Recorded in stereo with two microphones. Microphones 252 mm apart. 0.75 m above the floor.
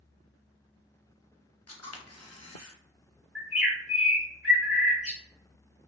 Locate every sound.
1.7 s a camera shutter: 75° left (ahead or behind), 0.6 m
3.4 s a bird: 5° right (ahead or behind), 1.5 m